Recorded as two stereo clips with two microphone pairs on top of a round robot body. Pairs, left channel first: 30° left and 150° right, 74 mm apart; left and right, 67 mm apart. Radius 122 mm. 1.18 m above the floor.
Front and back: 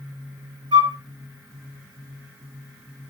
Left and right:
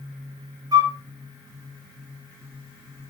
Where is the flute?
125° right, 2 m.